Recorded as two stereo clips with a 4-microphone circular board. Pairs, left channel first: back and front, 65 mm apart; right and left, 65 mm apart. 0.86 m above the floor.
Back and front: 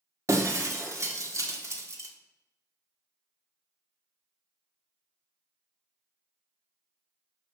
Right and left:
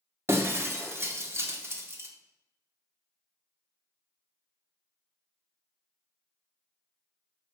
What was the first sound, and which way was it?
Breaking glass, 40° left.